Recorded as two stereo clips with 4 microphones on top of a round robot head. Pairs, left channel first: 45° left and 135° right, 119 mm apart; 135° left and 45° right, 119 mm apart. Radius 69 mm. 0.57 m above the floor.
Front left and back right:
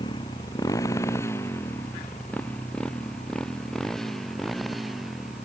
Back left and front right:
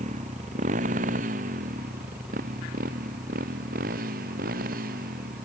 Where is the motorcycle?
10° right; by 5.5 s 45° right.